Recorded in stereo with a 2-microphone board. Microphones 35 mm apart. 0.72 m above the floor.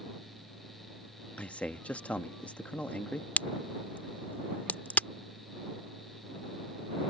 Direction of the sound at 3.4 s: 60° left (ahead or behind).